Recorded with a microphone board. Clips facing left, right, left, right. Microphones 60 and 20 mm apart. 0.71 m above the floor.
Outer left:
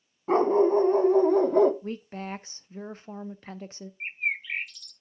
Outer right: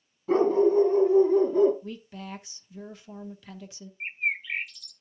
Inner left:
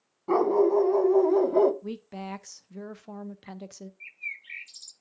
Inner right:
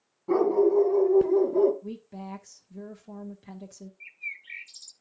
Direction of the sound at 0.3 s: 40° left (ahead or behind).